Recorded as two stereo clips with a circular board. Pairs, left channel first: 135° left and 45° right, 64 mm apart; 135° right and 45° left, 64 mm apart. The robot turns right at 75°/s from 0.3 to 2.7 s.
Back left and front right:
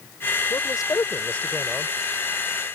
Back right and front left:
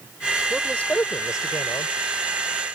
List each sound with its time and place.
0.5 s a man speaking: 135° left; by 1.9 s 115° right